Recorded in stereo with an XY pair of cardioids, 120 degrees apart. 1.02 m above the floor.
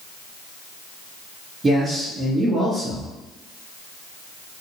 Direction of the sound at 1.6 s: 20° right.